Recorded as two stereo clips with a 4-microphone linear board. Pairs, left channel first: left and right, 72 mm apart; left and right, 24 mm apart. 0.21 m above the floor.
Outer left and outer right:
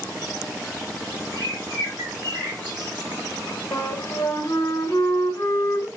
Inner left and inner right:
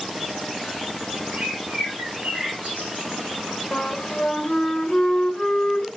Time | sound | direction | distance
1.3 | a bird | 70° right (ahead or behind) | 3.5 m
3.7 | a flute | 35° left (ahead or behind) | 1.3 m